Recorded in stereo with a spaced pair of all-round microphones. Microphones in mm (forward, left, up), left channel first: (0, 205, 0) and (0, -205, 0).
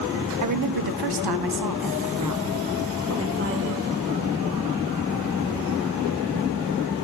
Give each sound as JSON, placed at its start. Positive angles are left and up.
{"t": 0.4, "sound": "a woman speaking", "side_deg": -50, "distance_m": 0.7}